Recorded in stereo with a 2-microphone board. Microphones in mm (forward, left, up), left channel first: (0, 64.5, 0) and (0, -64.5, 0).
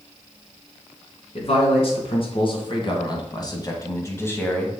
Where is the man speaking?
50° left (ahead or behind), 2.5 m; by 4.7 s 10° left (ahead or behind), 1.4 m.